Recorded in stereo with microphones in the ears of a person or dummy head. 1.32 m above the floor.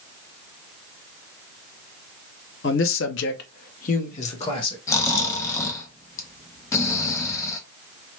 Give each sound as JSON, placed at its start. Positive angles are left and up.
{"t": 2.6, "sound": "a man speaking", "side_deg": 55, "distance_m": 0.6}
{"t": 4.9, "sound": "snoring", "side_deg": 15, "distance_m": 0.7}